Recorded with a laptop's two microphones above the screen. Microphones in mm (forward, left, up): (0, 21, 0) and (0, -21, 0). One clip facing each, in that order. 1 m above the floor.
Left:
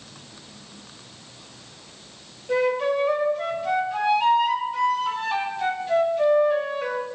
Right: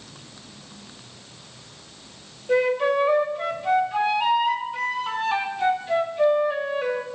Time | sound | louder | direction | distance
2.5 | a flute | right 2 dB | 5° right (ahead or behind) | 1.7 m